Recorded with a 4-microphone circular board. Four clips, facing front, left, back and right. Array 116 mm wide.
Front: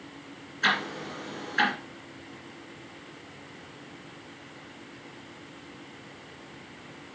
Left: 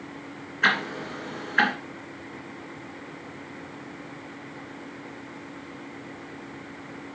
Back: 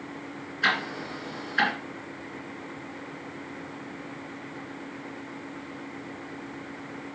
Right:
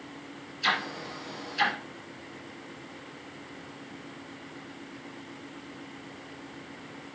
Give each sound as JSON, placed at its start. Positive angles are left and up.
{"t": 0.6, "sound": "ticking", "azimuth_deg": 95, "distance_m": 2.5}